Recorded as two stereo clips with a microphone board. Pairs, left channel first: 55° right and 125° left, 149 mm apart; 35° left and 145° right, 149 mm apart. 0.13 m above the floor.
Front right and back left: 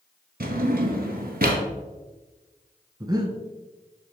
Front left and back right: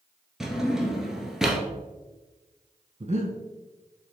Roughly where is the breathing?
Behind.